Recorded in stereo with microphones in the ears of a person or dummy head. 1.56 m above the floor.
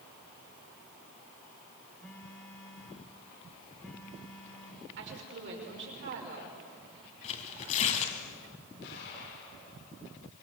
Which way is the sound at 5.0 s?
70° right (ahead or behind).